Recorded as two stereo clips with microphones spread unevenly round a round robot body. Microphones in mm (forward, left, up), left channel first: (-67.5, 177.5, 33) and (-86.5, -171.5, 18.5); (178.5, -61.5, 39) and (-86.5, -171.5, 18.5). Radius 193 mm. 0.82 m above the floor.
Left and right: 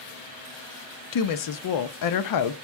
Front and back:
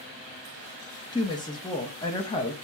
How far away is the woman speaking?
About 0.6 m.